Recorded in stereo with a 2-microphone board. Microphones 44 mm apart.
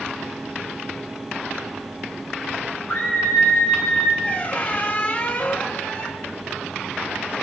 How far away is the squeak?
About 1.3 m.